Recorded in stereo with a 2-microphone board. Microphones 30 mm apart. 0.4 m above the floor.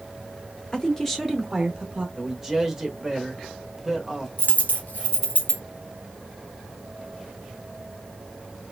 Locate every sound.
0.7 s a woman speaking: 20° left (ahead or behind), 0.8 m; by 2.1 s 25° right (ahead or behind), 0.9 m
2.2 s a man speaking: 10° right (ahead or behind), 1.0 m
4.4 s a dropped coin: 70° left (ahead or behind), 1.1 m